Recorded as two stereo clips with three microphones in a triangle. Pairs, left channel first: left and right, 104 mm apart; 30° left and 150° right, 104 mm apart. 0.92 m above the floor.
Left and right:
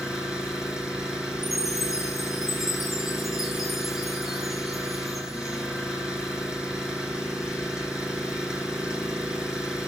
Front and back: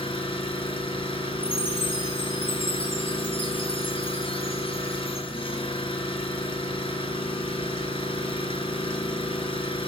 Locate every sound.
0.0 s an engine running: 5° right, 9 m
1.4 s a chime: straight ahead, 7.5 m